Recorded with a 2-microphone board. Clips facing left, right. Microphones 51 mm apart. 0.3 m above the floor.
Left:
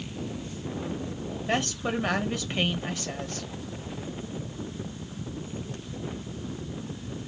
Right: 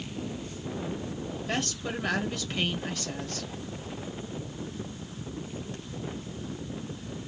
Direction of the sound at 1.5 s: 30° left (ahead or behind).